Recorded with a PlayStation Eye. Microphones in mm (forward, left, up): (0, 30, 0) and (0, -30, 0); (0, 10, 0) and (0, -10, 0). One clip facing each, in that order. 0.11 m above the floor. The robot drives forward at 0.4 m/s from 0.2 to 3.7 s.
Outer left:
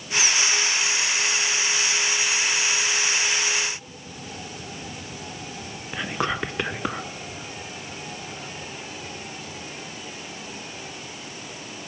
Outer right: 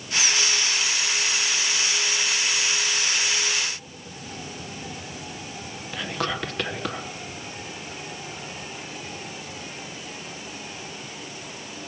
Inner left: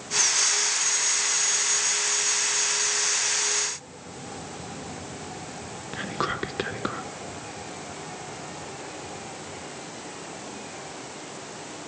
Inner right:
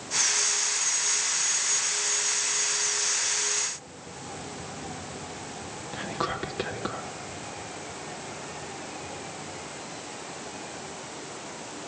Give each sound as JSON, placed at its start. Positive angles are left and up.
{"t": 5.9, "sound": "whispering", "side_deg": 20, "distance_m": 1.1}